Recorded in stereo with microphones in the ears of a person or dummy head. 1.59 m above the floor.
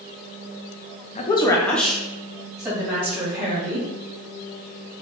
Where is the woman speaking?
35° left (ahead or behind), 0.6 m; by 3.9 s 15° right (ahead or behind), 3 m.